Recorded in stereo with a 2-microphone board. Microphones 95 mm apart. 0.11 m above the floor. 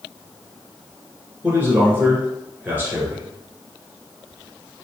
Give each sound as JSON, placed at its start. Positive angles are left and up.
{"t": 1.4, "sound": "a man speaking", "side_deg": -20, "distance_m": 1.1}